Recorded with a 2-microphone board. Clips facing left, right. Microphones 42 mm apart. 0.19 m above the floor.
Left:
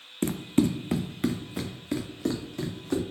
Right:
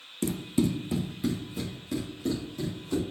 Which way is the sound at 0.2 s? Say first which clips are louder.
Left 3 dB; 35° left (ahead or behind).